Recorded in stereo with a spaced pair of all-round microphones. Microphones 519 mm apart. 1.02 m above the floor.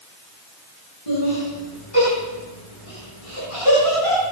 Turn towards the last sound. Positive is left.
turn(degrees=80)